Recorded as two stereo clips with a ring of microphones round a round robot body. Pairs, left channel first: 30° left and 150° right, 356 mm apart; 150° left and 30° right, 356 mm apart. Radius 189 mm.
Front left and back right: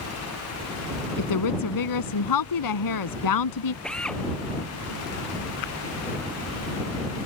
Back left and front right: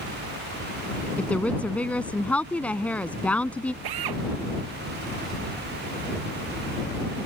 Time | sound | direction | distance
1.2 | a woman speaking | 65° left | ?
3.8 | a drill | 60° right | ?